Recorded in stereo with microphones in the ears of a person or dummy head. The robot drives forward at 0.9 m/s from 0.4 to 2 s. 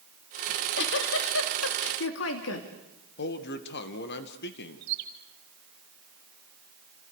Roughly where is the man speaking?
Left.